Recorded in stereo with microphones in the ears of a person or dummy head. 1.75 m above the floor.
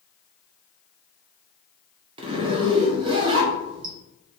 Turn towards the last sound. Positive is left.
turn(degrees=-25)  # may be behind; listen again after turning